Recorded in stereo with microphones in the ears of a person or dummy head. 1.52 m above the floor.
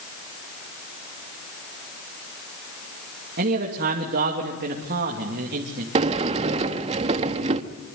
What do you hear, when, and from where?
3.4 s a man speaking: 55° right (ahead or behind), 3 m
6.0 s a sliding door: 35° right (ahead or behind), 1.4 m